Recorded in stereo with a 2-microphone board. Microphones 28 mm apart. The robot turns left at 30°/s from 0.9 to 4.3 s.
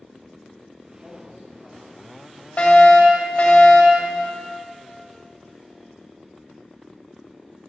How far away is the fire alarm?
About 2.5 m.